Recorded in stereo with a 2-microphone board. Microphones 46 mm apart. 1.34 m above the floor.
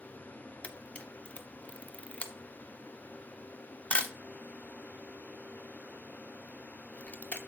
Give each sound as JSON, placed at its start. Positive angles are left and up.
{"t": 0.6, "sound": "a camera shutter", "side_deg": 30, "distance_m": 0.7}